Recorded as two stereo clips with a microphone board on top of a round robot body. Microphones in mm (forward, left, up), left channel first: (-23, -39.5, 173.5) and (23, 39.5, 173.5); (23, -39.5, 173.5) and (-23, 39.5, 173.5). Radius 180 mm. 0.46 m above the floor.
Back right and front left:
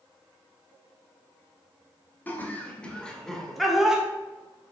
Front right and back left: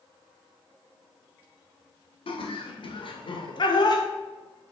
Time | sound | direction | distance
2.3 | laughter | 50° right | 2.5 m